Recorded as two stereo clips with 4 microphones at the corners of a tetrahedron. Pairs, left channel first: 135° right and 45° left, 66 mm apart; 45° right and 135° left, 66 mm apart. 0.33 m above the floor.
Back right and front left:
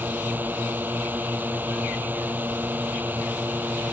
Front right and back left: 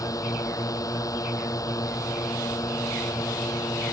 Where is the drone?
15° right.